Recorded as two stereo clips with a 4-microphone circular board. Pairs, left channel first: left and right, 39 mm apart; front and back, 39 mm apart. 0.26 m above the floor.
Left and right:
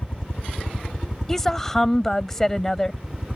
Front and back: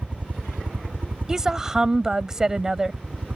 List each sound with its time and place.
0.0 s a helicopter: 145° left; by 3.4 s 175° right
1.3 s a woman speaking: 145° left